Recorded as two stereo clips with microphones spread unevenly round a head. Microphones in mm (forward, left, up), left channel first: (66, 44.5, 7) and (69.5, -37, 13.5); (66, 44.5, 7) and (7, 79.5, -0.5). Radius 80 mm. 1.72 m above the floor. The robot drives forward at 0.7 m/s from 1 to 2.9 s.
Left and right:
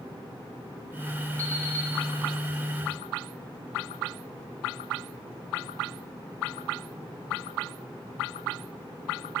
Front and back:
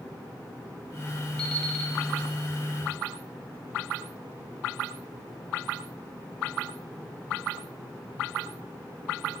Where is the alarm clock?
30° left, 1.4 m; by 1.9 s 45° left, 1.2 m.